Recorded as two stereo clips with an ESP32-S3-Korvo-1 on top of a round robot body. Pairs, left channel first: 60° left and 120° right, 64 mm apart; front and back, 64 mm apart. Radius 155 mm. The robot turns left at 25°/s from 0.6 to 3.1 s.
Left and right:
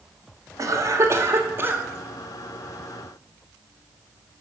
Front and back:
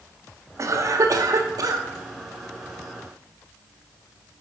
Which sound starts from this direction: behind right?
A cough, at 0.6 s.